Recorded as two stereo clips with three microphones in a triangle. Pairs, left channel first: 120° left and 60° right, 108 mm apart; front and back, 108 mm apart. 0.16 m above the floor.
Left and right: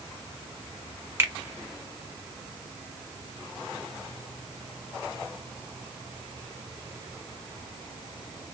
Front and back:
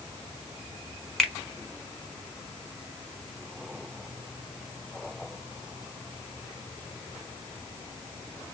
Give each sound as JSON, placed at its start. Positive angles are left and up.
{"t": 1.2, "sound": "a finger snap", "azimuth_deg": -80, "distance_m": 0.8}